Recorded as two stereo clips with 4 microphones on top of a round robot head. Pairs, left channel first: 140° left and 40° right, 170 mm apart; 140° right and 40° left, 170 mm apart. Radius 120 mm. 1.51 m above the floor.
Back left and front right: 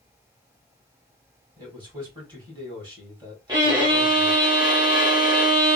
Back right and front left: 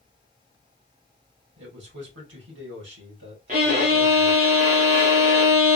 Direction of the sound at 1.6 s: 30° left.